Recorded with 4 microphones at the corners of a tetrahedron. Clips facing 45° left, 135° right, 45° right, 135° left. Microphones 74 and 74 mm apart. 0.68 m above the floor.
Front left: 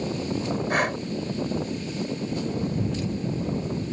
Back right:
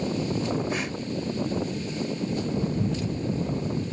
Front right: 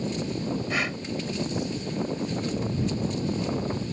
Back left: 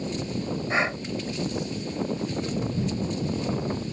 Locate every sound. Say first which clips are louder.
0.7 s breathing: front left 5 dB, back left 3 dB; 75° left